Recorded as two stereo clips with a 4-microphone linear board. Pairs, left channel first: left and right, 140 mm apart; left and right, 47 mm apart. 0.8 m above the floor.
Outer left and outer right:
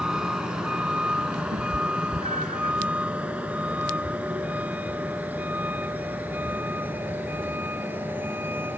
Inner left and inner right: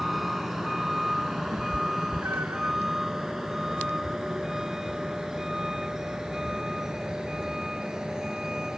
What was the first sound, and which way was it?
A vehicle, 5° right (ahead or behind).